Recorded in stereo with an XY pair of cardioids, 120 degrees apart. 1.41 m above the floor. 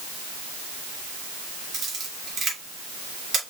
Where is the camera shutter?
40° right, 2.5 m.